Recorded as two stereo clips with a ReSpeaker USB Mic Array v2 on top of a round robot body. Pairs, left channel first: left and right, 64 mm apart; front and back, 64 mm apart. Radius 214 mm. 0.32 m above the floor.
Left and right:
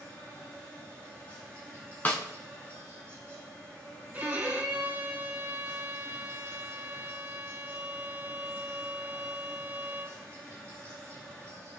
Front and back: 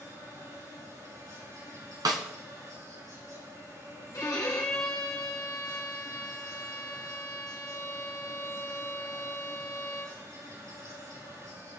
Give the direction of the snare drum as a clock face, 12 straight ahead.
7 o'clock.